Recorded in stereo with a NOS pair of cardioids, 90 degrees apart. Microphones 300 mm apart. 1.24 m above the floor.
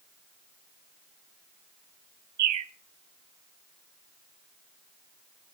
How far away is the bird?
About 0.9 m.